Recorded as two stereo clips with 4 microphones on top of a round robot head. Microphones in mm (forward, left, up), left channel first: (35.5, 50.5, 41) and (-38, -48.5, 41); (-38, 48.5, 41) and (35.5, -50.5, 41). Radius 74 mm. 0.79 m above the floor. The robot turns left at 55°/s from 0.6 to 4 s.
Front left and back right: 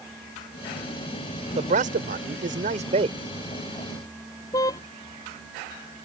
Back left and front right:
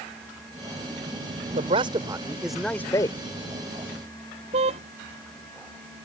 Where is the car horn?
10° right.